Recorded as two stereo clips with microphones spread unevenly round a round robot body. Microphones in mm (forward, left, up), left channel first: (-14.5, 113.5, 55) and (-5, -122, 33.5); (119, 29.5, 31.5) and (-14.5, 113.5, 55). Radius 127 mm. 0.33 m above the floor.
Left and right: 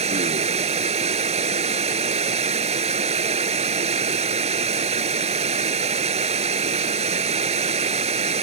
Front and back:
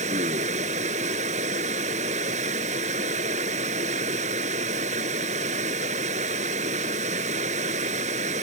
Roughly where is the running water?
Behind right.